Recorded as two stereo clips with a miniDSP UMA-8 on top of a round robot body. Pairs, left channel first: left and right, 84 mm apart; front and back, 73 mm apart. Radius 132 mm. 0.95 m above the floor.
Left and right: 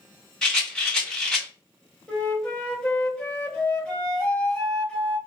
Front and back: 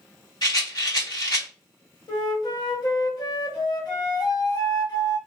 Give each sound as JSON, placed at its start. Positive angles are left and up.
{"t": 0.4, "sound": "a rattle", "azimuth_deg": 10, "distance_m": 2.0}
{"t": 2.1, "sound": "a flute", "azimuth_deg": 10, "distance_m": 1.0}